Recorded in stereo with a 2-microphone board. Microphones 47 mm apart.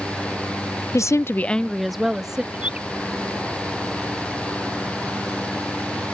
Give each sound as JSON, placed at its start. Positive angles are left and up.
{"t": 0.9, "sound": "a woman speaking", "side_deg": 75}
{"t": 2.5, "sound": "a bird", "side_deg": -25}